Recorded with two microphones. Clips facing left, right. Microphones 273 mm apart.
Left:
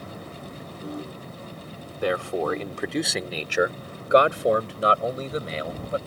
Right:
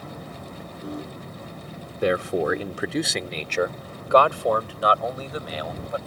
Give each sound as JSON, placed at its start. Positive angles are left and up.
{"t": 2.0, "sound": "a man speaking", "side_deg": -25}